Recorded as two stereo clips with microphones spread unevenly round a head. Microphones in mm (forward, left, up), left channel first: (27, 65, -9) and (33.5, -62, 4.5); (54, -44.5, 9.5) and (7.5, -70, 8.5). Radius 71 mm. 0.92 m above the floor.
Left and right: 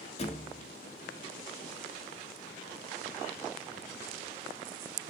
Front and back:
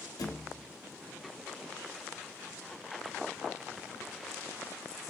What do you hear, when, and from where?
0.2 s a thud: 50° left, 0.8 m